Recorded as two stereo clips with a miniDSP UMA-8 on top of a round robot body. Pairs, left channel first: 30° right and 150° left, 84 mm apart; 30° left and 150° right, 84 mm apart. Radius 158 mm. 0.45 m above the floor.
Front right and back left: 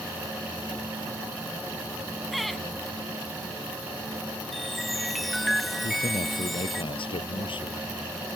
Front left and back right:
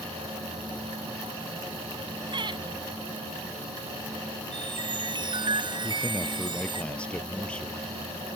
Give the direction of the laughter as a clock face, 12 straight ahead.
4 o'clock.